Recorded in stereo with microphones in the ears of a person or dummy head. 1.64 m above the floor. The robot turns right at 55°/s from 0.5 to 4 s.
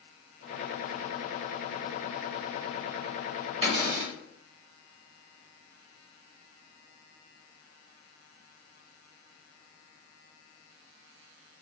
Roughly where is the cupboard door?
Right.